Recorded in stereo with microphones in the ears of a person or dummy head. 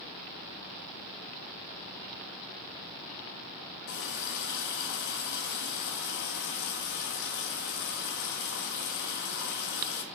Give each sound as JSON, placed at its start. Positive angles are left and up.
{"t": 3.9, "sound": "a running tap", "side_deg": 60, "distance_m": 1.4}